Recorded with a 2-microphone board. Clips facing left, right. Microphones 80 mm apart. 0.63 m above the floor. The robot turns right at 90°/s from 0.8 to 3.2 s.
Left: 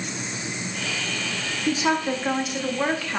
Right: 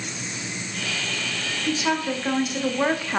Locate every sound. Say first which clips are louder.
1.7 s a woman speaking: left 2 dB; 25° left (ahead or behind), 0.6 m; by 3.2 s 20° right (ahead or behind), 0.6 m